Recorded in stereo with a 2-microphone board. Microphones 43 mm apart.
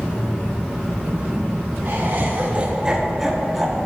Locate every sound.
1.9 s laughter: 55° right (ahead or behind), 0.7 m; by 3.9 s 5° left (ahead or behind), 1.3 m